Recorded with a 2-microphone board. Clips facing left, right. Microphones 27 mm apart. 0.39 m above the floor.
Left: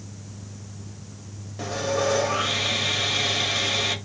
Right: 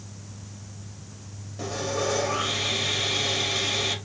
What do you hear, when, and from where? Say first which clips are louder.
1.6 s sawing: left 3 dB; 10° left (ahead or behind), 1.0 m